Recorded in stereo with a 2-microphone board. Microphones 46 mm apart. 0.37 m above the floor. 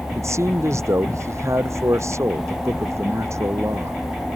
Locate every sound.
0.1 s a man speaking: 70° right (ahead or behind)